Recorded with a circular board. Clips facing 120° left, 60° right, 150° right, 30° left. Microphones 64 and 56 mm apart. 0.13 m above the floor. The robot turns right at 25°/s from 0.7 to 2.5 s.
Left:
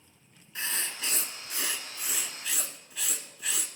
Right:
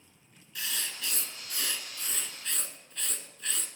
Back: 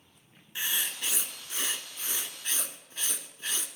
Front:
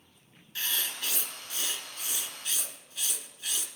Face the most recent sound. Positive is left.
turn(degrees=-160)